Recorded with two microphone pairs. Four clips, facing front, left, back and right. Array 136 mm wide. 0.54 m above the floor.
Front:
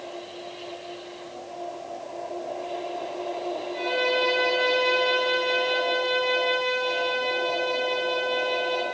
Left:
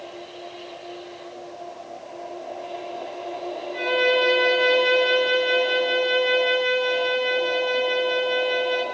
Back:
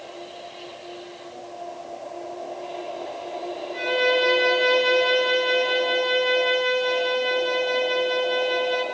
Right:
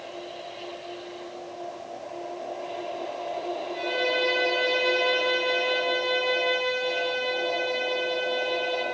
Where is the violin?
135° left, 8 m.